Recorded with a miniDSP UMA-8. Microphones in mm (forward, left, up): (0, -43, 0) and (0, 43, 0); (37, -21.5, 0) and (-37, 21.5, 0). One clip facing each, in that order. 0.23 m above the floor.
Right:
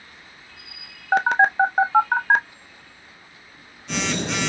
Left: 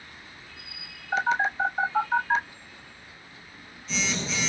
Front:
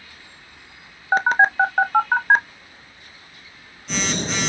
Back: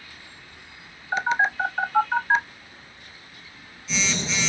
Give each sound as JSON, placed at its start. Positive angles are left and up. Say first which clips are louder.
{"t": 1.1, "sound": "a phone buzzing", "louder": "right 7 dB, front 6 dB", "azimuth_deg": -70, "distance_m": 0.5}